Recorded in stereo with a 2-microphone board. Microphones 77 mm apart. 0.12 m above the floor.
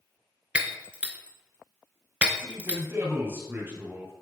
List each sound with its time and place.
0.6 s breaking glass: 15° right (ahead or behind), 0.6 m
2.4 s a man speaking: 30° right (ahead or behind), 2.5 m